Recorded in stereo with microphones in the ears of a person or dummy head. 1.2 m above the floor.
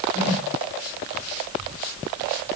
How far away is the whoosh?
About 3 m.